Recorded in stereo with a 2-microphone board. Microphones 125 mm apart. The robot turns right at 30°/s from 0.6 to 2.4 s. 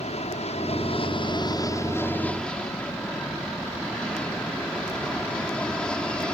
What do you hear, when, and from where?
0.0 s an aircraft: 120° left; by 6.3 s 175° left